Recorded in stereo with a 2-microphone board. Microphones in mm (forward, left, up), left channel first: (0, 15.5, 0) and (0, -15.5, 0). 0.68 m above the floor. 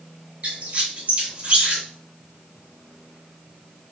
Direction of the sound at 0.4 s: 45° right (ahead or behind).